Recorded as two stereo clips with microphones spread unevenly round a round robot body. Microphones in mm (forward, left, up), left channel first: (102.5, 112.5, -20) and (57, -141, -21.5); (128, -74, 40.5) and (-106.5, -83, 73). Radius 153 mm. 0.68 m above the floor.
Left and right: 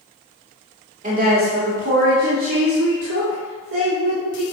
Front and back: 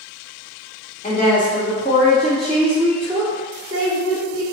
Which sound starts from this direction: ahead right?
A woman speaking, at 1.0 s.